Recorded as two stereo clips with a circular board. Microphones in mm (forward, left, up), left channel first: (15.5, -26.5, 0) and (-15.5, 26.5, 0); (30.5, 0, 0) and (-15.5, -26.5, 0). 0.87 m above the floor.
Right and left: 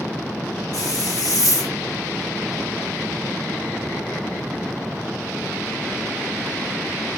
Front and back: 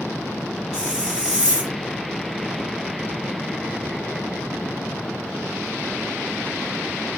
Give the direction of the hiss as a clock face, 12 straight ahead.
2 o'clock.